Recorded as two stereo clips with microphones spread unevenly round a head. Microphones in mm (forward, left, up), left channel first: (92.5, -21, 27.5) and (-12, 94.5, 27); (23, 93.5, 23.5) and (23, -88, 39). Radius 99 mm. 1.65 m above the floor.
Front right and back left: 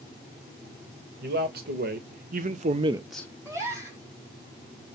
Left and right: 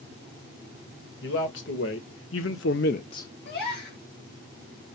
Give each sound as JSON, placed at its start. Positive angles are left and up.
{"t": 1.2, "sound": "a man speaking", "azimuth_deg": 120, "distance_m": 2.0}
{"t": 3.5, "sound": "a gasp", "azimuth_deg": 65, "distance_m": 4.0}